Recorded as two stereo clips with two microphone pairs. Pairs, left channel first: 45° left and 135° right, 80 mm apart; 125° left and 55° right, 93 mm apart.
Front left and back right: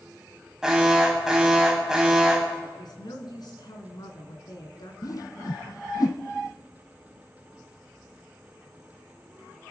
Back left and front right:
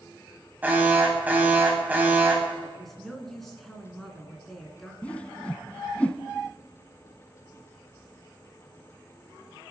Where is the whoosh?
55° left, 0.8 m.